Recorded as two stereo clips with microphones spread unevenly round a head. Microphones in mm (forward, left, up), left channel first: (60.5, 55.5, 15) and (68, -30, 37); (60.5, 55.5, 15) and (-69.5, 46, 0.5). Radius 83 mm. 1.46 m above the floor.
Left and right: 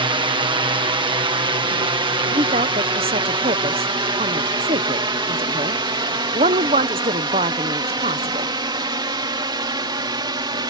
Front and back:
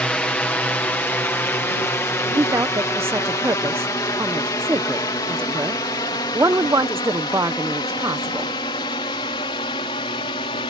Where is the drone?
80° right; by 10.7 s 55° right.